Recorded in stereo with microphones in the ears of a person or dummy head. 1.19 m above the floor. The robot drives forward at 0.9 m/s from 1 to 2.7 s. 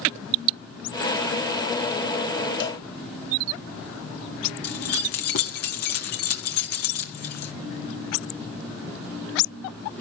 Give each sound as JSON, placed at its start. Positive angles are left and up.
{"t": 2.6, "sound": "a cowbell", "side_deg": 65, "distance_m": 0.8}
{"t": 4.6, "sound": "keys jangling", "side_deg": 60, "distance_m": 1.7}